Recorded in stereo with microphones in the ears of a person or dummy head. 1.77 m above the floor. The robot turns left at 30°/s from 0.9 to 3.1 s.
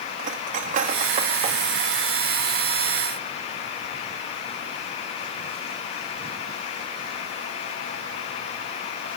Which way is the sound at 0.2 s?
45° right (ahead or behind).